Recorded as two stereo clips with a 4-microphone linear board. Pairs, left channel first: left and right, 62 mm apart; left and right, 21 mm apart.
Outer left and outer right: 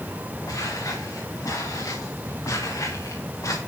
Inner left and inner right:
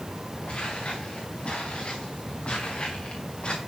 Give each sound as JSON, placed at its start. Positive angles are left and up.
{"t": 0.5, "sound": "footsteps", "side_deg": 65, "distance_m": 6.5}